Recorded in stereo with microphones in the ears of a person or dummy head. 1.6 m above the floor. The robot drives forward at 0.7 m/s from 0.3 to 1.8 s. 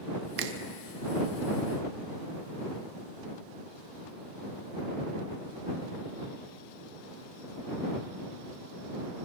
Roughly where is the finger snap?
Right.